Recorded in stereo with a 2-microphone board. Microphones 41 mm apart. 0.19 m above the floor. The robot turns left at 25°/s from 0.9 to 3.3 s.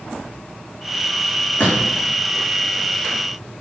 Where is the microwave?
I don't hear a microwave.